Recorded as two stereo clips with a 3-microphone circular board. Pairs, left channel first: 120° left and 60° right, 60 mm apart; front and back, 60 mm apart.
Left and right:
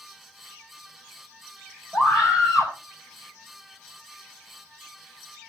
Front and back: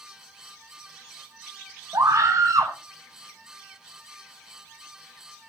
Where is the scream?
140° right, 5.5 m.